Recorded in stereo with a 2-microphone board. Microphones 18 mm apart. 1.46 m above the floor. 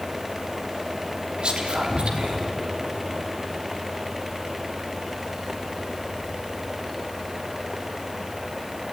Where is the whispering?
85° right, 3 m.